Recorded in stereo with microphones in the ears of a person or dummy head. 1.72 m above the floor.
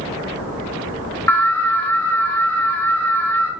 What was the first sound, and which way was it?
An alarm, 10° left (ahead or behind).